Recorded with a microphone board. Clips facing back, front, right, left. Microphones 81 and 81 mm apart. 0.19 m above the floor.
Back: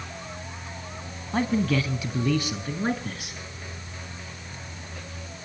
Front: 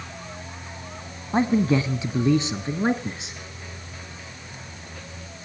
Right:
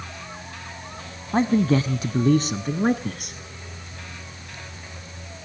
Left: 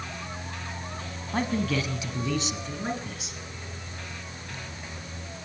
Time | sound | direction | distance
1.3 | a man speaking | 50° right | 1.2 m